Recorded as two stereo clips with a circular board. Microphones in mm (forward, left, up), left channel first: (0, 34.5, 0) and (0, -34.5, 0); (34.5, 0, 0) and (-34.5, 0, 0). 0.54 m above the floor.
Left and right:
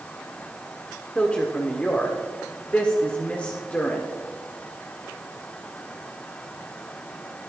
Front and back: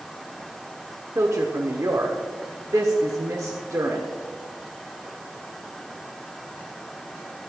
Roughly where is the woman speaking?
Behind left.